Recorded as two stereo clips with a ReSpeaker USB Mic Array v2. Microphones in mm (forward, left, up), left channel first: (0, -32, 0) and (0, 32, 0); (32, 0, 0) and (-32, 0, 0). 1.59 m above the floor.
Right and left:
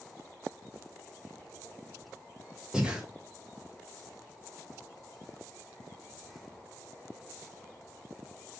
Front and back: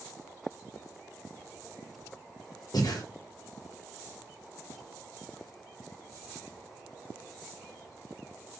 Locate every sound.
2.7 s breathing: 15° left, 1.6 m